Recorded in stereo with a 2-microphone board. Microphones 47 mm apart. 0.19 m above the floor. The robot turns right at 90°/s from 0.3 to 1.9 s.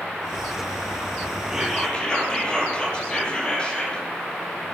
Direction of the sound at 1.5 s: 15° right.